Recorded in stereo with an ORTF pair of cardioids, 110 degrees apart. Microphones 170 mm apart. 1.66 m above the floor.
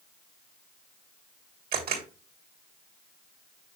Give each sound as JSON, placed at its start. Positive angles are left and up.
{"t": 1.7, "sound": "a camera shutter", "azimuth_deg": -60, "distance_m": 2.5}